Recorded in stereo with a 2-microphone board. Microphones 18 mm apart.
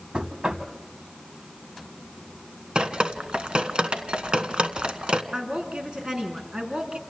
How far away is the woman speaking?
About 5 m.